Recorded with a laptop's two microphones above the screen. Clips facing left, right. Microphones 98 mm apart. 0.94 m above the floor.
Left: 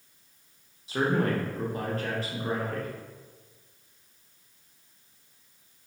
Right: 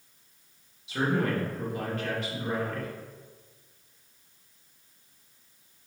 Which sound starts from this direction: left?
A man speaking, at 0.9 s.